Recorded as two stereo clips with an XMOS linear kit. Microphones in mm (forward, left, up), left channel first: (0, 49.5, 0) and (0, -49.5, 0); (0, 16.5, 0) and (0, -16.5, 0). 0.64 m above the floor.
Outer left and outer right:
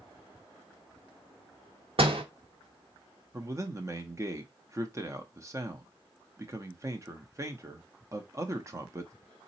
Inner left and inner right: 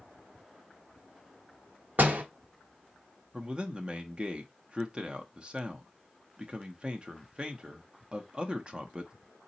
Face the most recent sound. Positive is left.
turn(degrees=-30)  # may be behind; listen again after turning